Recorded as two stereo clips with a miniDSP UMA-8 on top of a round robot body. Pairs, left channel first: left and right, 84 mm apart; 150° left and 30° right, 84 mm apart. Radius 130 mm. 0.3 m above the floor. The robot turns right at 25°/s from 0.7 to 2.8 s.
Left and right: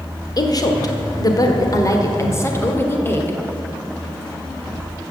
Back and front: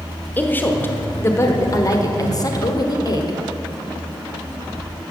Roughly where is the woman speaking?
Left.